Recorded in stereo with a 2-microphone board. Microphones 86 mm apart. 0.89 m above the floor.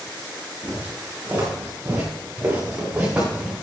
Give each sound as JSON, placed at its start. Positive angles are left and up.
{"t": 0.6, "sound": "footsteps", "side_deg": -30, "distance_m": 7.5}